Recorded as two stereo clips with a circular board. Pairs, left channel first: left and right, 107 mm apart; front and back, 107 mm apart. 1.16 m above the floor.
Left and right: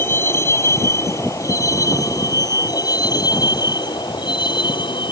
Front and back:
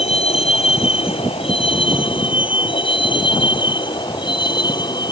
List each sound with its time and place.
0.0 s a vehicle: 25° left; by 5.1 s 45° left